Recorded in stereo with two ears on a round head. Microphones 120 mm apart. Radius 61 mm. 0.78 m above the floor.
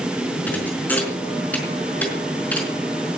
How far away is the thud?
About 4.5 m.